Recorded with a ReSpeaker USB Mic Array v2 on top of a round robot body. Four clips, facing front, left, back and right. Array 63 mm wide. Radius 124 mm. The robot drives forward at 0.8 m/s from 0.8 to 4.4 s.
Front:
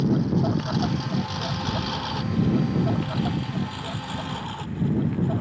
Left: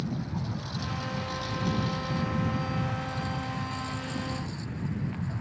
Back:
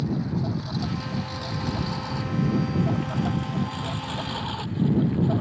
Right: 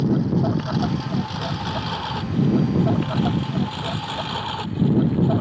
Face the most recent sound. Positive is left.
turn(degrees=-95)